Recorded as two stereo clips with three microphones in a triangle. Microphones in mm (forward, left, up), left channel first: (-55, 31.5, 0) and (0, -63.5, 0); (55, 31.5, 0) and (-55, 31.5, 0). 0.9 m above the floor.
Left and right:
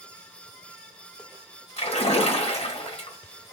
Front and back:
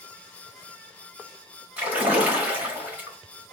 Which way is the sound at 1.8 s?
105° left.